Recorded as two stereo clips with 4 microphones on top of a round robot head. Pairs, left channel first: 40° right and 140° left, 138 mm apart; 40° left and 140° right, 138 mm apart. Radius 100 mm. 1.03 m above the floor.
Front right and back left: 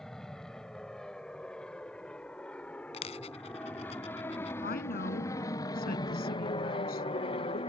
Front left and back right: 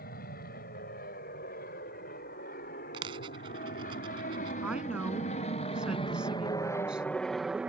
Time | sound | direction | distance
0.0 | an aircraft | 45° left | ?
2.9 | a dropped coin | 85° right | ?
4.6 | a woman speaking | 55° right | ?